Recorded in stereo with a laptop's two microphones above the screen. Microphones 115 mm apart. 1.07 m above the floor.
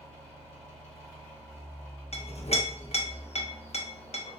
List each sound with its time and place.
0.0 s a fan: 10° left (ahead or behind), 1.8 m
2.1 s a clink: 65° left (ahead or behind), 0.7 m